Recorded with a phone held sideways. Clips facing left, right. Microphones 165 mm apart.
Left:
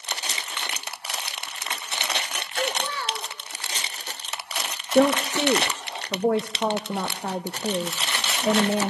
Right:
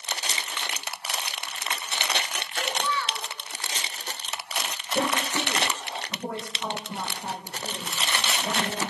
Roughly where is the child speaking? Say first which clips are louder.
Left 1 dB; left.